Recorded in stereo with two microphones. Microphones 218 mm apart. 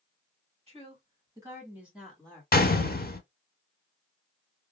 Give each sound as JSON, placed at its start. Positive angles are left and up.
{"t": 0.7, "sound": "a woman speaking", "side_deg": -30, "distance_m": 1.8}
{"t": 2.5, "sound": "a gunshot", "side_deg": 45, "distance_m": 0.5}